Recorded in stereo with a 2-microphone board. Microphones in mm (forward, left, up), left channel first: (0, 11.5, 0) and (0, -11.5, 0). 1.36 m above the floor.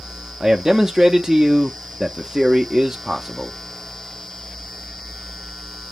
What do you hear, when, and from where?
0.4 s a man speaking: 20° right (ahead or behind), 0.6 m